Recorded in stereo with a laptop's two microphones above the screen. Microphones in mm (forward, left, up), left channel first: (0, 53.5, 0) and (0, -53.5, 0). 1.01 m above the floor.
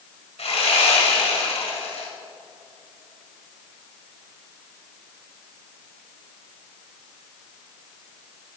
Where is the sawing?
70° left (ahead or behind), 1.7 m.